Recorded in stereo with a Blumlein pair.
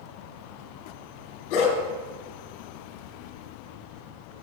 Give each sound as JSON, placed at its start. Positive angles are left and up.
{"t": 1.5, "sound": "a dog barking", "azimuth_deg": 40, "distance_m": 3.0}